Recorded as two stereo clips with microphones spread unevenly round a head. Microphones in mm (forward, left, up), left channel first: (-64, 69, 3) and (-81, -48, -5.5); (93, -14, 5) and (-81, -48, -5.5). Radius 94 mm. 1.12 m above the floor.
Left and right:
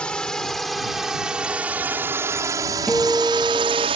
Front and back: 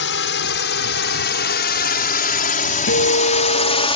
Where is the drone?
Straight ahead; by 4.0 s 45° right.